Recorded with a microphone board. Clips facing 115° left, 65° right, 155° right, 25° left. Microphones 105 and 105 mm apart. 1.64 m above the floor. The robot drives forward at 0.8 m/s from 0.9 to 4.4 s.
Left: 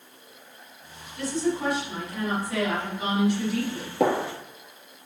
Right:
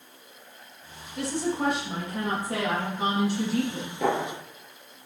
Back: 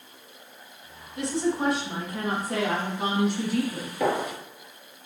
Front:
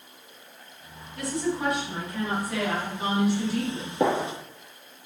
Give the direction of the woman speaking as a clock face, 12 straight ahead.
3 o'clock.